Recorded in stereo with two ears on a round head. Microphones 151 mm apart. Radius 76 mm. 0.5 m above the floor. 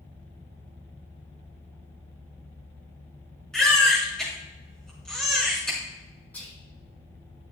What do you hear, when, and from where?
3.5 s a baby crying: 5° left (ahead or behind), 5 m
6.3 s whispering: 10° left (ahead or behind), 4.5 m